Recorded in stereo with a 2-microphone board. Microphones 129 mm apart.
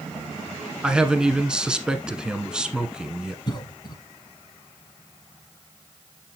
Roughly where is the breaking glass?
I don't hear breaking glass.